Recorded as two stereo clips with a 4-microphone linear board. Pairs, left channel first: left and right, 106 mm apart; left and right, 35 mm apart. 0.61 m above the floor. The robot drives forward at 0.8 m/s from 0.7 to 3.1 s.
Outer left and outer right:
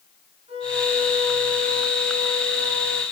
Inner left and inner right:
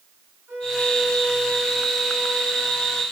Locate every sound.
0.5 s a violin: 80° right, 8 m; by 3.0 s 85° right, 8 m